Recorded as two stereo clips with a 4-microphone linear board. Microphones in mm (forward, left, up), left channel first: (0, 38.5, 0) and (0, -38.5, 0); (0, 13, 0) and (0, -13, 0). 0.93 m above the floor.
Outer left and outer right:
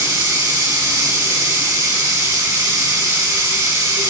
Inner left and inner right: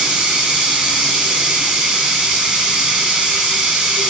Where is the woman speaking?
I don't hear a woman speaking.